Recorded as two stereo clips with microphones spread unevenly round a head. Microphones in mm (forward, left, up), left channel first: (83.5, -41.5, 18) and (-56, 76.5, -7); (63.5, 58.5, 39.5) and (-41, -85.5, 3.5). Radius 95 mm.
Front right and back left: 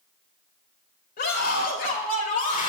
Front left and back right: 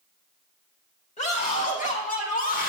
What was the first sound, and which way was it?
A scream, straight ahead.